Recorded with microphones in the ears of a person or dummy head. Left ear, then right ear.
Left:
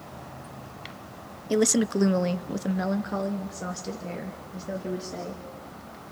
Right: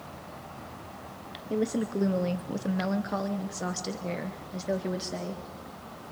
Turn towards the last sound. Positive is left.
turn(degrees=-35)  # may be behind; listen again after turning